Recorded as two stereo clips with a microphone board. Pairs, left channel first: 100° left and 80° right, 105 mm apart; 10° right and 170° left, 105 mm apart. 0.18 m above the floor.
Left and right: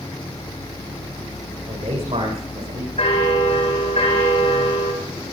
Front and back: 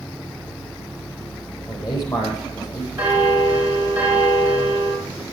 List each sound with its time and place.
1.7 s a man speaking: 60° right, 8 m
3.0 s a bell: 95° left, 5 m